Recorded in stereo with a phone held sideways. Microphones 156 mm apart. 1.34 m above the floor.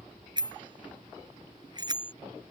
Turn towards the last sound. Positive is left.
turn(degrees=-30)  # may be behind; listen again after turning